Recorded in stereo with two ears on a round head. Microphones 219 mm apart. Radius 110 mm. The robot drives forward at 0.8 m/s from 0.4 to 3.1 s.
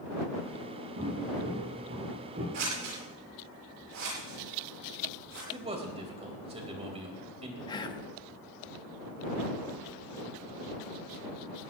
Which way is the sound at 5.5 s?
25° right (ahead or behind).